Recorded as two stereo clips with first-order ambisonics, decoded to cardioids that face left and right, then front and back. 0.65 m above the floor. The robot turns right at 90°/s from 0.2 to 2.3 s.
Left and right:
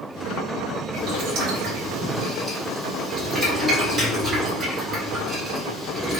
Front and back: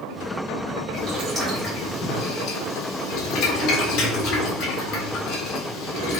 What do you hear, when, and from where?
0.9 s boiling: 140° right, 1.4 m; by 6.2 s 15° right, 1.4 m